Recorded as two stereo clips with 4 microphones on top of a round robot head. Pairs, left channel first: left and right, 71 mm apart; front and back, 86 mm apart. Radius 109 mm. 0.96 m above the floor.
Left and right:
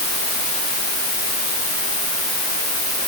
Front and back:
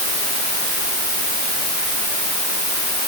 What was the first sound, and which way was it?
Only background noise.